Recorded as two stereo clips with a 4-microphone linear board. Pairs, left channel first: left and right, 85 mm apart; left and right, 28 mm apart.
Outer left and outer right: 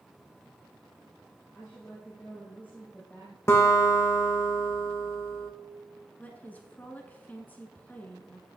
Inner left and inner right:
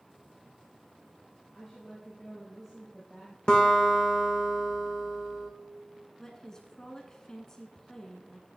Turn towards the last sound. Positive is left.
turn(degrees=20)  # may be behind; listen again after turning